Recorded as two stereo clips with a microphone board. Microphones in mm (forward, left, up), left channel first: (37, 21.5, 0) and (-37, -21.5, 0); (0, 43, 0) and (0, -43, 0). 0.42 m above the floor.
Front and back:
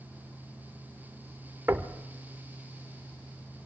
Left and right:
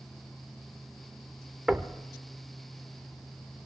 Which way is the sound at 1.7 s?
165° right.